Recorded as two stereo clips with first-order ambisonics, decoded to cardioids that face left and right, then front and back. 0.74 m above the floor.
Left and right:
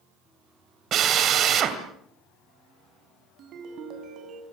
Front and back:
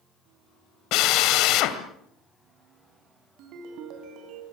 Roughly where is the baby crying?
No baby crying in this recording.